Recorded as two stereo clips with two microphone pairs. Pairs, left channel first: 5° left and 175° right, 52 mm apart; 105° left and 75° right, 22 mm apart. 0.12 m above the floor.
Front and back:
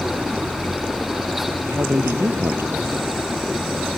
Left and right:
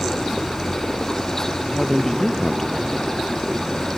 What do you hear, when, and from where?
1.7 s a man speaking: 175° left